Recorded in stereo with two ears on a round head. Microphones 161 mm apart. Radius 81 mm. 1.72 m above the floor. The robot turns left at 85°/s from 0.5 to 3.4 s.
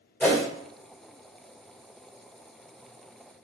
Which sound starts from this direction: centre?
A whoosh, at 0.2 s.